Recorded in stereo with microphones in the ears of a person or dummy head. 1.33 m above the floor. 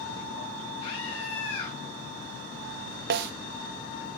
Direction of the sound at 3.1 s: 65° right (ahead or behind).